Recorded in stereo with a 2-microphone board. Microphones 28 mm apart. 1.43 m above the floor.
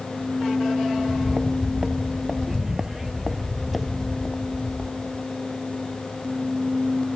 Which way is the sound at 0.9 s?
40° right (ahead or behind).